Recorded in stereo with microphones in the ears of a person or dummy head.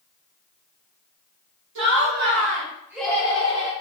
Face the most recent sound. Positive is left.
turn(degrees=50)  # may be behind; listen again after turning